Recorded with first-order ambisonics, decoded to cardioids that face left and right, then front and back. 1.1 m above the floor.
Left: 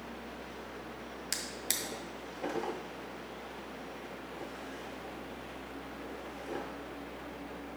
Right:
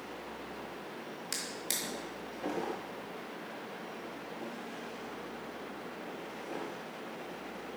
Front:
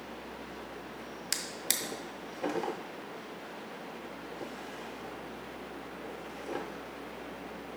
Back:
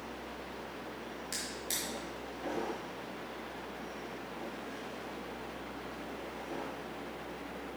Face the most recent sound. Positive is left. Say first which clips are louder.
# left 1 dB, front 5 dB
turn(degrees=20)